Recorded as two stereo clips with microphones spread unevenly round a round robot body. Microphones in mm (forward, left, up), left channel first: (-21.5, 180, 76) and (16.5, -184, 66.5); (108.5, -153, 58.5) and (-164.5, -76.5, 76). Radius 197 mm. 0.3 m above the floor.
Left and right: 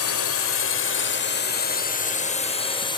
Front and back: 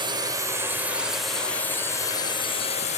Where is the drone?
95° left; by 3.0 s 25° left.